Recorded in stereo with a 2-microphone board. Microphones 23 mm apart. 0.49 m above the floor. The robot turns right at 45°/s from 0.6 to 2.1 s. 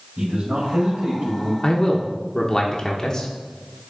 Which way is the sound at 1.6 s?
30° left (ahead or behind).